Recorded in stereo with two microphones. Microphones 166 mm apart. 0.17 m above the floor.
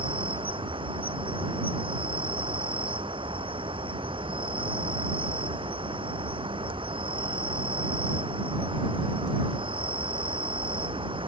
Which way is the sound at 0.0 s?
30° right (ahead or behind).